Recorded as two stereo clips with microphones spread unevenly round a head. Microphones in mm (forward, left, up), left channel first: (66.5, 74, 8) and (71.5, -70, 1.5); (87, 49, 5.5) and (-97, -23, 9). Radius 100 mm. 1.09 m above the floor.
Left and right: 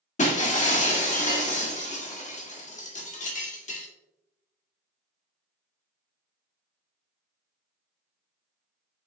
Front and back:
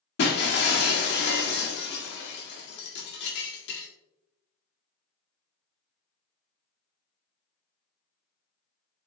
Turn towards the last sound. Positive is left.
turn(degrees=55)